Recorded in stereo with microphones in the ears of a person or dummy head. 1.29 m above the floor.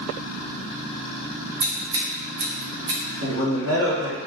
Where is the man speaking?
85° right, 1.8 m.